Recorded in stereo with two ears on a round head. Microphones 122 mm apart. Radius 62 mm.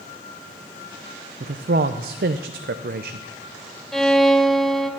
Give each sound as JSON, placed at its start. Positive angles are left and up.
{"t": 1.4, "sound": "a man speaking", "side_deg": -75, "distance_m": 0.5}
{"t": 3.9, "sound": "a violin", "side_deg": 5, "distance_m": 0.7}